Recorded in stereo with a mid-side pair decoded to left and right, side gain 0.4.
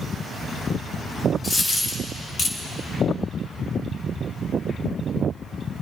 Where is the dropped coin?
50° left, 1.9 m.